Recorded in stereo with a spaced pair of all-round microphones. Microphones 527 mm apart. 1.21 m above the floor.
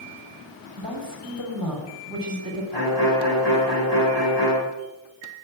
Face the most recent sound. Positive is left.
turn(degrees=45)  # may be behind; listen again after turning